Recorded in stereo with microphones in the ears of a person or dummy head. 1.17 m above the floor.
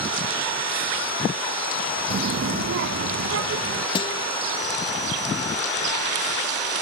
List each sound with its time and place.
2.1 s a child speaking: 40° right (ahead or behind); by 3.9 s 80° right
4.0 s a guitar: 30° left (ahead or behind)